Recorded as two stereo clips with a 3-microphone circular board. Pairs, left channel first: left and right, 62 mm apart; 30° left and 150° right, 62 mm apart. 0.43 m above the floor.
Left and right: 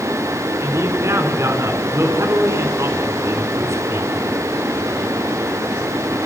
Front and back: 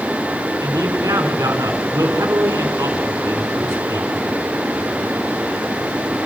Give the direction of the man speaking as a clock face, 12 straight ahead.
4 o'clock.